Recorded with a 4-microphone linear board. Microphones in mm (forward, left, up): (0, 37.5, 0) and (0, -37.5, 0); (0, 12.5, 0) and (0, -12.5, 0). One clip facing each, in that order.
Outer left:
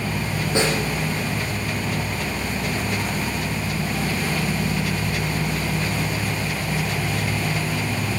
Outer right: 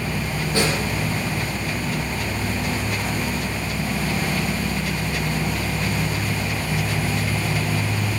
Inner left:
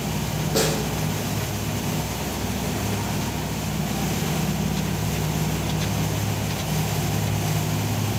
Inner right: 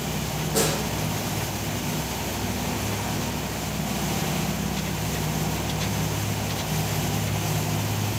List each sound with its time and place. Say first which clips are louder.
0.6 s a snare drum: outer left 1 dB, inner left 2 dB; 20° left (ahead or behind), 8.5 m